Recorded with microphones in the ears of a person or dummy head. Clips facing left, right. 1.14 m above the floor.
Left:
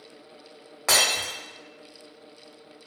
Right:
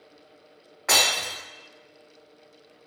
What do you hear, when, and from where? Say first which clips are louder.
0.9 s breaking glass: even; 50° left (ahead or behind), 1.5 m